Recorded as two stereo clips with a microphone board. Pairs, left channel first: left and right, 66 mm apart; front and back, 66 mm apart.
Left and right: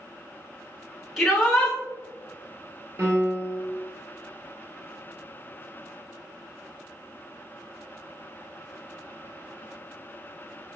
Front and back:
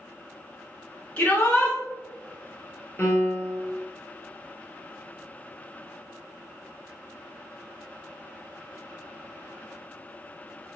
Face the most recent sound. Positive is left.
turn(degrees=-55)